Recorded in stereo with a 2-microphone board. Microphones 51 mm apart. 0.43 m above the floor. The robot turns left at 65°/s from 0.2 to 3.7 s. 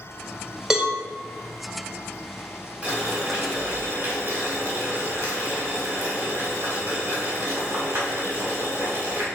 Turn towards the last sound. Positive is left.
turn(degrees=-90)